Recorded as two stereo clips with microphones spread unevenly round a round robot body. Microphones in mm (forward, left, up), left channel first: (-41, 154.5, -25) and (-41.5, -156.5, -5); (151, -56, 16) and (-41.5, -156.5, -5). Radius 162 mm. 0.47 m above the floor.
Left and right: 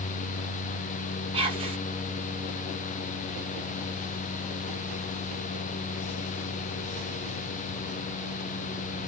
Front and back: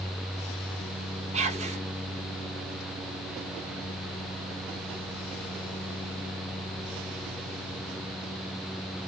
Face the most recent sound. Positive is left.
turn(degrees=-155)